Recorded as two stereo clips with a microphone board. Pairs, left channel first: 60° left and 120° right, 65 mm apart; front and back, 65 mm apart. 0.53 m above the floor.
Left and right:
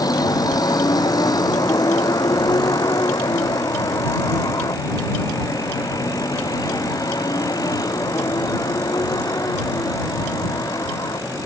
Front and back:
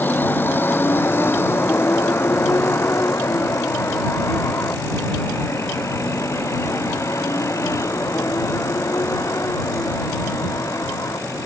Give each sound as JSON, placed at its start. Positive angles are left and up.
{"t": 0.0, "sound": "a vehicle", "azimuth_deg": 60}